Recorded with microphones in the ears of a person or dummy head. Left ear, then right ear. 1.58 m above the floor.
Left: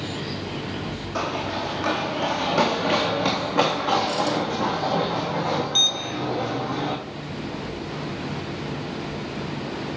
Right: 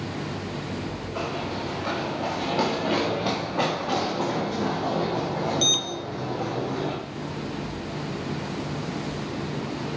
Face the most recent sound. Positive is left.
turn(degrees=75)  # may be behind; listen again after turning